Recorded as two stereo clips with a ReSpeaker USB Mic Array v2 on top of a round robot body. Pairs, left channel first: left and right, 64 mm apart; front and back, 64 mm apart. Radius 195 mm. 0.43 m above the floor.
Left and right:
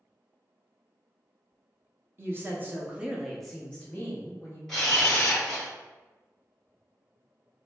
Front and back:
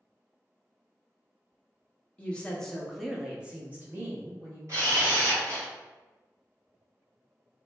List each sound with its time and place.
2.2 s a woman speaking: 65° right, 1.0 m; by 4.6 s 135° left, 1.2 m
4.7 s a camera shutter: 170° left, 1.9 m